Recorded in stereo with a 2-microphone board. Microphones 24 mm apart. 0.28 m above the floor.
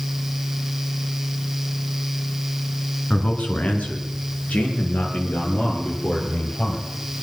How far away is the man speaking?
About 2.5 m.